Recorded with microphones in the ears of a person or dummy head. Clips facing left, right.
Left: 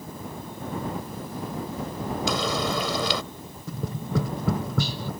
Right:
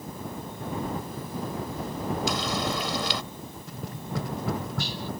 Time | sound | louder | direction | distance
2.3 | frying | left 2 dB | 80° left | ?
3.7 | tapping | left 7 dB | 80° left | ?